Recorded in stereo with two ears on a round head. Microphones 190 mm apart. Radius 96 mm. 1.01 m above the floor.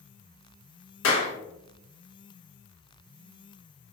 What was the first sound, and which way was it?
A clap, 60° left (ahead or behind).